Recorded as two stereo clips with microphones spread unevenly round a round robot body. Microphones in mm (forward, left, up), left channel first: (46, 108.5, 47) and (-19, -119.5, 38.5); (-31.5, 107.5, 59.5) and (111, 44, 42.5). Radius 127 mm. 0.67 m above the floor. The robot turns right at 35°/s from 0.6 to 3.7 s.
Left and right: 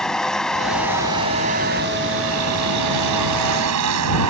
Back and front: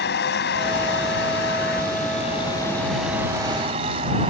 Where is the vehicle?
160° left; by 4.3 s 90° right.